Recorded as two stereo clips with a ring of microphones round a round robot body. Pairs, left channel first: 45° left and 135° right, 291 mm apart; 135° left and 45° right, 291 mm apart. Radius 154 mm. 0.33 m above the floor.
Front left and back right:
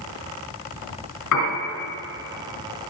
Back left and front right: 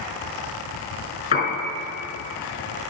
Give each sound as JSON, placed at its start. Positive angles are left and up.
{"t": 1.3, "sound": "a piano", "azimuth_deg": 70, "distance_m": 3.5}